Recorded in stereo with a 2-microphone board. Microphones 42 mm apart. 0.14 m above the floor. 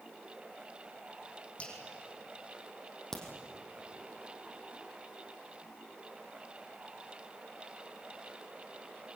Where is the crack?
10° left (ahead or behind), 4 m.